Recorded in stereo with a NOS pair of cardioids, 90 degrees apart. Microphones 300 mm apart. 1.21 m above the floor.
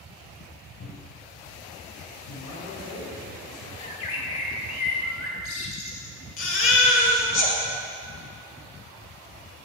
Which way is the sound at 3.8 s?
50° left.